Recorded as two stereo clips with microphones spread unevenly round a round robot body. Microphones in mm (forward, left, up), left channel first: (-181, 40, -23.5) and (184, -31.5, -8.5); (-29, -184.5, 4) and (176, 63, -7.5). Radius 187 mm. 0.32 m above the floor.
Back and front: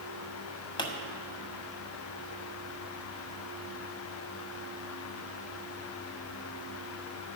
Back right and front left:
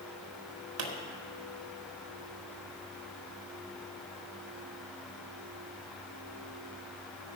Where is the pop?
95° left, 1.5 m.